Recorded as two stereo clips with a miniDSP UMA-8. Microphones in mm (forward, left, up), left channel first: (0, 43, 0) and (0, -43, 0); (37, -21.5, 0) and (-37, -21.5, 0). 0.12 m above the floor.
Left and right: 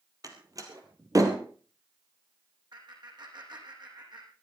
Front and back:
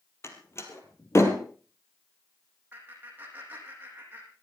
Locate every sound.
0.2 s a door slam: 50° right, 2 m
2.7 s laughter: 115° right, 5.5 m